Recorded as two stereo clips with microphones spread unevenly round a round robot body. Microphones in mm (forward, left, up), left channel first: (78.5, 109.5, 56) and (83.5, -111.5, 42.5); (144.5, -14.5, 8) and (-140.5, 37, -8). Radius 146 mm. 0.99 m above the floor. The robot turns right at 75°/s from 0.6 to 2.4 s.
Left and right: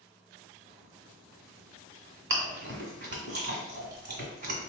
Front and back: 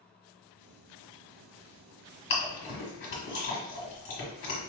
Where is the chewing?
55° right, 1.5 m; by 4.7 s 50° right, 1.5 m.